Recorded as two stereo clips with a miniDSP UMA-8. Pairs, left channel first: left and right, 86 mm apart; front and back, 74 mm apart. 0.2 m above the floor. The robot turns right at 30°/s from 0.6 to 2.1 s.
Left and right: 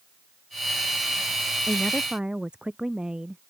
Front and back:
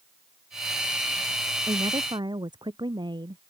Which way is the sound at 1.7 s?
175° left.